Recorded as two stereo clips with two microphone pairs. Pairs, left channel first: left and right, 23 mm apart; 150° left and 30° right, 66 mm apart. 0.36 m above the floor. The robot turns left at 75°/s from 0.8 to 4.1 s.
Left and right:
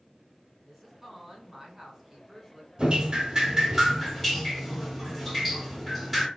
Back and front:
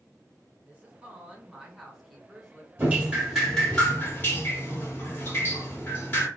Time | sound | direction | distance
0.7 | a woman speaking | 25° right | 1.3 m
2.8 | dripping | 70° right | 1.6 m